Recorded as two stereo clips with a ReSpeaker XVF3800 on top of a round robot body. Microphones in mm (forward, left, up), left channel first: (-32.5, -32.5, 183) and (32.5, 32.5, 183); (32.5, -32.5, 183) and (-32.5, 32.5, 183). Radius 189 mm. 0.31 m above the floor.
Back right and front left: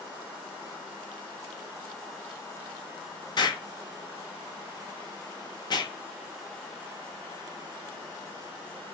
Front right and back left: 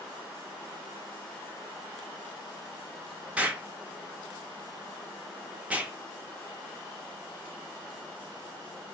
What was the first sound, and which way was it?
An explosion, 155° right.